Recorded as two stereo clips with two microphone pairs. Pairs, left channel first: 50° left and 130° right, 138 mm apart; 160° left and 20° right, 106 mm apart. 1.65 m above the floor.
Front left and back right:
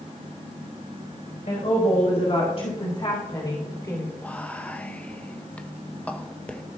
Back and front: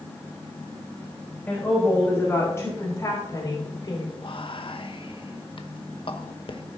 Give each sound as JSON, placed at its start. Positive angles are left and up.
{"t": 1.5, "sound": "a woman speaking", "azimuth_deg": 85, "distance_m": 3.5}
{"t": 4.2, "sound": "whispering", "azimuth_deg": 130, "distance_m": 0.9}